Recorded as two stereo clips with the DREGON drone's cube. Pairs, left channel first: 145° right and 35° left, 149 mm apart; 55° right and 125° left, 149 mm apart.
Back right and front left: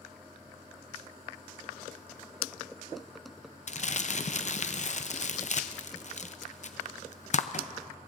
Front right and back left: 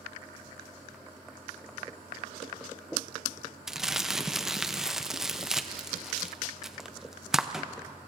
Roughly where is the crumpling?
Behind right.